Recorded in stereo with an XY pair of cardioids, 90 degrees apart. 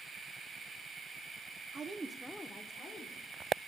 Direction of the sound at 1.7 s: 55° right.